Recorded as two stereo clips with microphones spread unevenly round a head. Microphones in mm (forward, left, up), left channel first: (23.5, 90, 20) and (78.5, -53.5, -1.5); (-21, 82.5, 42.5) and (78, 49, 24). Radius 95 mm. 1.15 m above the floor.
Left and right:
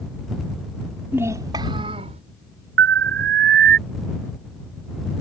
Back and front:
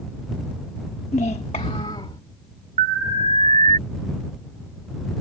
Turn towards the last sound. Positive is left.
turn(degrees=-70)